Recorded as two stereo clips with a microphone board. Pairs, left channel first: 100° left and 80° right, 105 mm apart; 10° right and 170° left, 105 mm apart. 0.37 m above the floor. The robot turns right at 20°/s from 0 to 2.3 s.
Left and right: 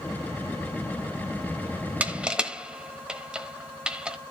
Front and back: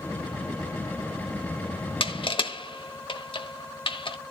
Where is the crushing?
5° right, 1.0 m; by 4.2 s straight ahead, 1.0 m.